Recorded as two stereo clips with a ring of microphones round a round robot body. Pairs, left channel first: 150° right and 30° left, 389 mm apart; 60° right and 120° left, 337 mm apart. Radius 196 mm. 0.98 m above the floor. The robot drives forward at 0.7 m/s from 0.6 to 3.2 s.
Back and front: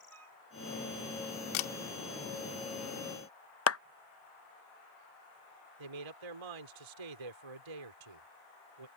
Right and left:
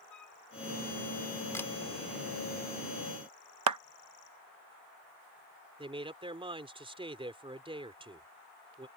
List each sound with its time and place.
0.1 s a flute: 25° right
1.5 s a camera shutter: 145° right
3.7 s a clap: 155° left
5.8 s a man speaking: 45° left